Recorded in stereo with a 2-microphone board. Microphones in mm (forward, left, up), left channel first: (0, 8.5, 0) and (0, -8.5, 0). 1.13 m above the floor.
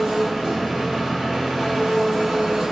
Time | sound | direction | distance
0.0 | an engine running | 60° right (ahead or behind) | 1.1 m